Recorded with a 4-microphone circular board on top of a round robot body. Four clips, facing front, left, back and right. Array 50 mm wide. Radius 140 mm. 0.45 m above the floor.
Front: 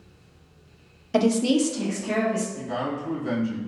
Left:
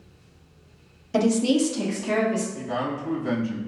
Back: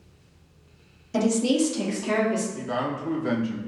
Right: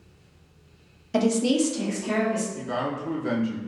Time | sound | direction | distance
1.1 | a woman speaking | 5° right | 1.2 m
2.5 | a man speaking | 145° right | 2.0 m